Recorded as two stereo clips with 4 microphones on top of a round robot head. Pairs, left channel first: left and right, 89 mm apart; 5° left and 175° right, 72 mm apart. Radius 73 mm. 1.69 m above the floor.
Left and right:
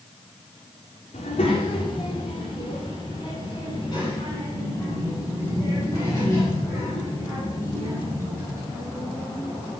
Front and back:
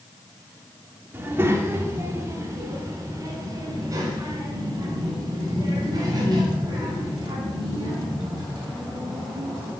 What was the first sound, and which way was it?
A child speaking, 125° left.